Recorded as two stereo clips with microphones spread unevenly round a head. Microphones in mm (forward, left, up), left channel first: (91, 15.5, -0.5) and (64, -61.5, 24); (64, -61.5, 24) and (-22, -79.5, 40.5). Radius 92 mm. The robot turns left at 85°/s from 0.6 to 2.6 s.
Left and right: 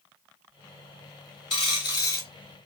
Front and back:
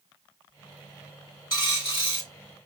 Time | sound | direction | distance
1.5 | a dropped coin | 85° left | 1.8 m